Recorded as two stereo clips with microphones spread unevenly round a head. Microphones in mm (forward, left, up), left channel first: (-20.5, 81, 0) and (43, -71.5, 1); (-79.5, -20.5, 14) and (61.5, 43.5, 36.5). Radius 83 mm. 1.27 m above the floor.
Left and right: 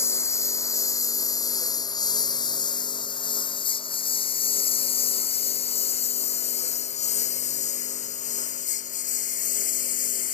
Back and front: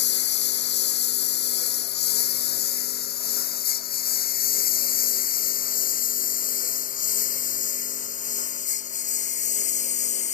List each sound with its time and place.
0.0 s a lawn mower: 170° right; by 10.4 s 160° left